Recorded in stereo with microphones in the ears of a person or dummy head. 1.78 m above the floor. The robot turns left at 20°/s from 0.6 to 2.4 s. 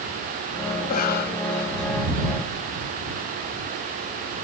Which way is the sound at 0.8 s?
40° left (ahead or behind).